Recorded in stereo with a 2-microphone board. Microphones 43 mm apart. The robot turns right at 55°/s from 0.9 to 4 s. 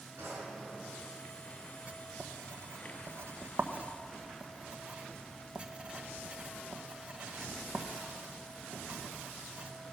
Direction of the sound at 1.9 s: 35° right (ahead or behind).